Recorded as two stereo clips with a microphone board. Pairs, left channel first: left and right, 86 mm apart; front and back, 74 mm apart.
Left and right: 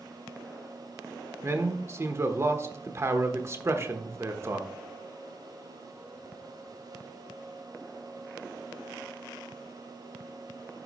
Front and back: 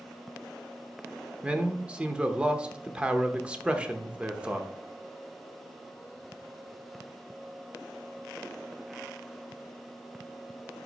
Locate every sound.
1.4 s a man speaking: 115° right, 0.9 m